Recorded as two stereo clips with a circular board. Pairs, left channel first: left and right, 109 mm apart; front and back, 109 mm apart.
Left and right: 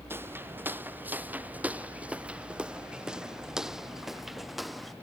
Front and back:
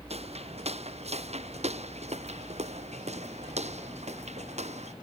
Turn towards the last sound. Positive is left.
turn(degrees=180)